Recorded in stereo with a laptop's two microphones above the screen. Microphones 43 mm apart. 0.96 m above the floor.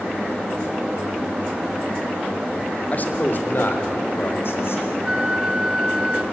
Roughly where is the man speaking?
Left.